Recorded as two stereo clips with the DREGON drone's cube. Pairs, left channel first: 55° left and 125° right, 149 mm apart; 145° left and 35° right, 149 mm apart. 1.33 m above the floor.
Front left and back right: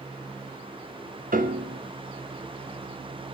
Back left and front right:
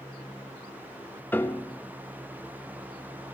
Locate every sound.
1.3 s a piano: 140° right, 0.9 m